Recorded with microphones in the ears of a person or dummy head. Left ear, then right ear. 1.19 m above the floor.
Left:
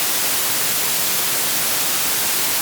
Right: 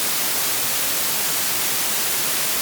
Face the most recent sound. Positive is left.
No sound to turn to.